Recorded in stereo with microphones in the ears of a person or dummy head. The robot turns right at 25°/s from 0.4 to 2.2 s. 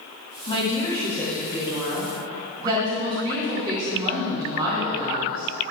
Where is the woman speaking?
155° left, 2 m; by 5.5 s 160° right, 2 m.